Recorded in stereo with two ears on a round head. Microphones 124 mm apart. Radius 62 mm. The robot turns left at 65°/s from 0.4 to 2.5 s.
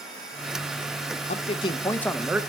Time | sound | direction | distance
1.3 | a man speaking | 60° left | 0.6 m